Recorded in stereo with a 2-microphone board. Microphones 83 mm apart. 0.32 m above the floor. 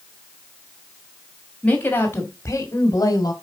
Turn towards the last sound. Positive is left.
turn(degrees=50)  # may be behind; listen again after turning